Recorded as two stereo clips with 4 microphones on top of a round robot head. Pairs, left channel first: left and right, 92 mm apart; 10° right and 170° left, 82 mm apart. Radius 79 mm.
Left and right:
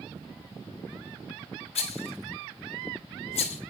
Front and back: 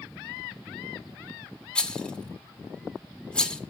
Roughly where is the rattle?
Left.